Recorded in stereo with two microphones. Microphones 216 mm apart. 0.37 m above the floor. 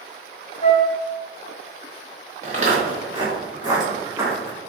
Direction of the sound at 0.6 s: 30° left (ahead or behind).